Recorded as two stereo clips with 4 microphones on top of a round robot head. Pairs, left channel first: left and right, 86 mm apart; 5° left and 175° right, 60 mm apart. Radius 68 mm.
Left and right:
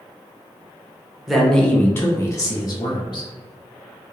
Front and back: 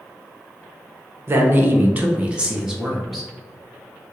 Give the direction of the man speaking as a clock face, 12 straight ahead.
6 o'clock.